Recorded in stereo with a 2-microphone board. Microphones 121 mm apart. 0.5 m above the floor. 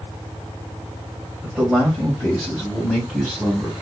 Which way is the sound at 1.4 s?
10° right (ahead or behind).